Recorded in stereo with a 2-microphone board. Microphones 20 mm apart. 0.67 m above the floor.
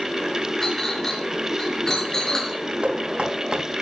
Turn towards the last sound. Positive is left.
turn(degrees=-60)  # may be behind; listen again after turning